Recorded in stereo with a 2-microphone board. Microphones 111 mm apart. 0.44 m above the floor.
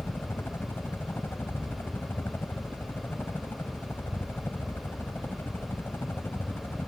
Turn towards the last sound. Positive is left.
turn(degrees=20)  # may be behind; listen again after turning